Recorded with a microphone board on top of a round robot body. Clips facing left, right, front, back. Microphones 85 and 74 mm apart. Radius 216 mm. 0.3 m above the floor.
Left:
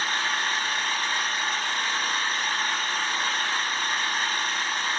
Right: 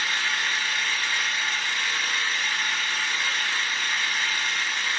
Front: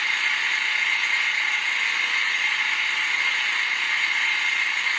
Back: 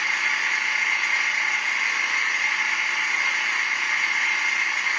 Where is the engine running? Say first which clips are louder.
Left 1 dB, back 1 dB; 105° left, 1.3 m.